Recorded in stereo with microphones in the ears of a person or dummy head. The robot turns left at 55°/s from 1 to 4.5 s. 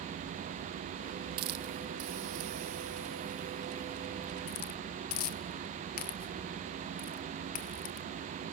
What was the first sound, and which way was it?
A hiss, 50° right (ahead or behind).